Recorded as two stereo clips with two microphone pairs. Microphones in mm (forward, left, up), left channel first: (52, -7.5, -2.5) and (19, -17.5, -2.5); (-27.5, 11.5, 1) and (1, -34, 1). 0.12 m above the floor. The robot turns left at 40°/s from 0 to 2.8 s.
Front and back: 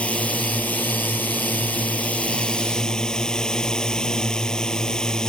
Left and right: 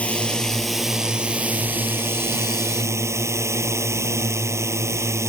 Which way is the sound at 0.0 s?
60° left.